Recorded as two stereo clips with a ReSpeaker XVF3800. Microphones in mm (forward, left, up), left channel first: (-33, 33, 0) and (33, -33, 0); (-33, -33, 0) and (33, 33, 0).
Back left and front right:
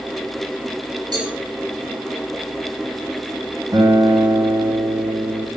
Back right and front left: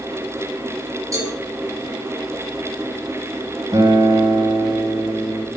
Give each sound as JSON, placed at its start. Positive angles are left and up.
{"t": 1.1, "sound": "a cowbell", "azimuth_deg": -10, "distance_m": 7.5}
{"t": 3.7, "sound": "a guitar", "azimuth_deg": 0, "distance_m": 5.0}